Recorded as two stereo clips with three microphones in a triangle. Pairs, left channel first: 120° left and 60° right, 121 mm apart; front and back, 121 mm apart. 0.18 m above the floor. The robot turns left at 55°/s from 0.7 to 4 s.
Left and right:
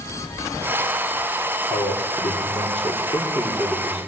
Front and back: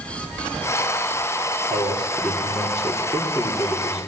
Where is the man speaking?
135° left, 4 m; by 4.1 s 10° left, 4 m.